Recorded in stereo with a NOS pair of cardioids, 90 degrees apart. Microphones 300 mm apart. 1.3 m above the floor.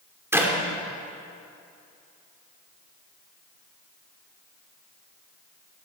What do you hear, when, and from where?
0.3 s a clap: 10° right, 3 m